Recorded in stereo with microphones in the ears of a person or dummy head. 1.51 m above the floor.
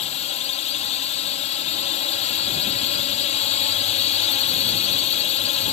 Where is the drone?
35° left (ahead or behind).